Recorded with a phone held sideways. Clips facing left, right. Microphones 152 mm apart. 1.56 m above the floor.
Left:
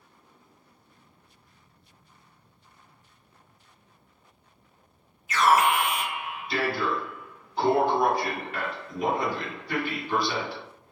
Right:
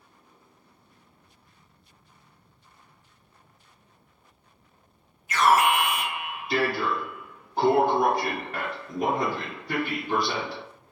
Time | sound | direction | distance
5.3 | an alarm | 50° right (ahead or behind) | 1.2 m